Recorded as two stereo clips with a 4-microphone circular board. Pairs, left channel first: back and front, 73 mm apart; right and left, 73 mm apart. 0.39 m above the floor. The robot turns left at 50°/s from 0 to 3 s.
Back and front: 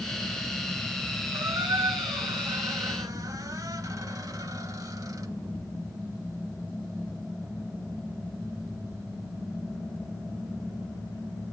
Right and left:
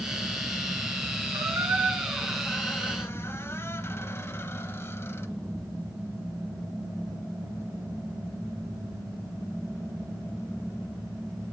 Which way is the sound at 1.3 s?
50° left.